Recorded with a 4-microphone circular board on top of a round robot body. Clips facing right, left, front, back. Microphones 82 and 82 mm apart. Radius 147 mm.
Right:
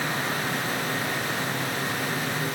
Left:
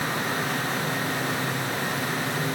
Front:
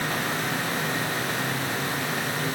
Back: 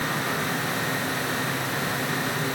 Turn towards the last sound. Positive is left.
No sound to turn to.